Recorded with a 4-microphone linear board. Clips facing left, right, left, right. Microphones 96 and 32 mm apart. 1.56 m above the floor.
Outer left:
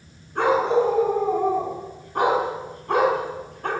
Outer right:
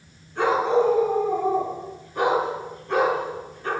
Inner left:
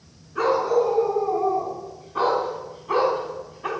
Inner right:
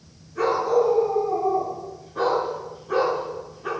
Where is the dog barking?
50° left (ahead or behind), 7 m; by 3.7 s 60° left (ahead or behind), 4.5 m.